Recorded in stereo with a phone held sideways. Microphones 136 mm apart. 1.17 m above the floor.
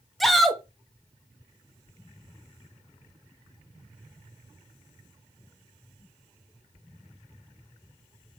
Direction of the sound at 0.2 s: Centre (ahead or behind).